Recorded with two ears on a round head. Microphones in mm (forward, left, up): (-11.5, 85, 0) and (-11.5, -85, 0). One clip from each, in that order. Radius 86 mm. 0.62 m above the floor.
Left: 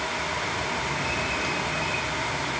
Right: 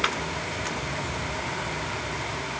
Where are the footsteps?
No footsteps in this recording.